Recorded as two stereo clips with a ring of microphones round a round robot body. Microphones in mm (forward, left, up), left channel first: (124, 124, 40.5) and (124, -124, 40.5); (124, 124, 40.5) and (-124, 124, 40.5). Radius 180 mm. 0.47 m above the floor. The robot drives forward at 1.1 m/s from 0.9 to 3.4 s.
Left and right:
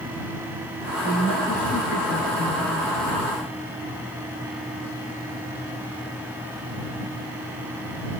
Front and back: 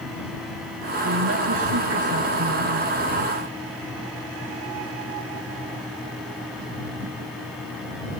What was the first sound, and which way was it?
A woman speaking, 150° left.